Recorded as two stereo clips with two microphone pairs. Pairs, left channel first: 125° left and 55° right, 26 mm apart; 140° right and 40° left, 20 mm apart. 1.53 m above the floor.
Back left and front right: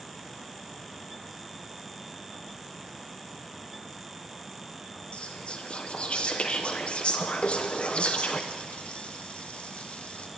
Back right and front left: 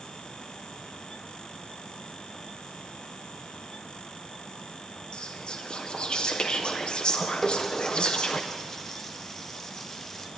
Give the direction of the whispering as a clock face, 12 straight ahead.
6 o'clock.